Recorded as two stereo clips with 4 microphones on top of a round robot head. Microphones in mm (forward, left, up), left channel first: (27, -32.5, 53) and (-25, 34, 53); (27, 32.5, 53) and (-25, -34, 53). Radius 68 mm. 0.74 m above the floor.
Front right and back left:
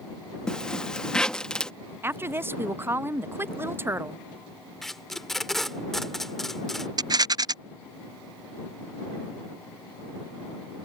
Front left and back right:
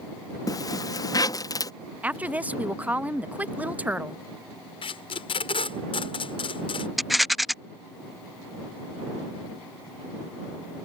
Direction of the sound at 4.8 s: 35° left.